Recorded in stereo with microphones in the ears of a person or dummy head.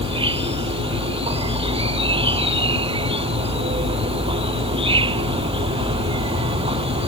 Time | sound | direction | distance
0.0 | an insect | 30° right (ahead or behind) | ?